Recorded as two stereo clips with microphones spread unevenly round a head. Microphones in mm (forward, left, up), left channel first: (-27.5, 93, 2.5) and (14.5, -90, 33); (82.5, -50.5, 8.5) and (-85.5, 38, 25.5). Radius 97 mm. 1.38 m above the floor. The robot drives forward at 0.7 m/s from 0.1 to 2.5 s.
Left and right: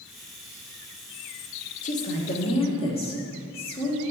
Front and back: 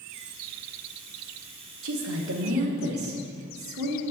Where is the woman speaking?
155° left, 0.7 m; by 4.0 s 165° left, 1.2 m.